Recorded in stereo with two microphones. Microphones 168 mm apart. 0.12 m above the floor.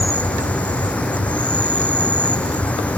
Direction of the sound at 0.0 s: 10° left (ahead or behind).